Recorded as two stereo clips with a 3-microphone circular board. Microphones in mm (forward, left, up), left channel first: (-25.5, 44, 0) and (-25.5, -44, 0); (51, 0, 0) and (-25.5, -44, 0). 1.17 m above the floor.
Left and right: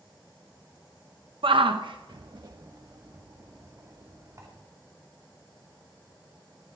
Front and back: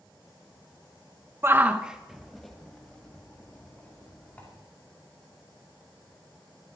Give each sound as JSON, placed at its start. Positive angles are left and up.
{"t": 1.4, "sound": "a shout", "azimuth_deg": -90, "distance_m": 0.7}